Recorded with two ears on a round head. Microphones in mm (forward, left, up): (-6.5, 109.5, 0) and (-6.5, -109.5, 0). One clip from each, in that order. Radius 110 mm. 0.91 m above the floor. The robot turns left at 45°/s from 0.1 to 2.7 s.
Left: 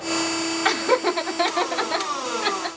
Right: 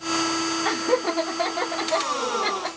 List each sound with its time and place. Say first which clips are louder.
0.7 s laughter: left 5 dB; 70° left (ahead or behind), 1.5 m; by 2.7 s 15° left (ahead or behind), 1.5 m